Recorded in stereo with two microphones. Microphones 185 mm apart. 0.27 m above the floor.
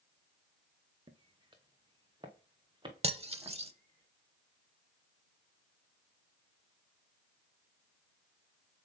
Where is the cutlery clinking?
35° right (ahead or behind), 0.6 m.